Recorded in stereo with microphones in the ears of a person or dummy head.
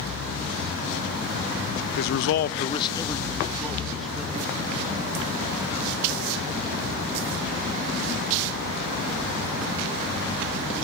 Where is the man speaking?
55° left (ahead or behind), 0.7 m; by 4.5 s 5° right (ahead or behind), 3 m.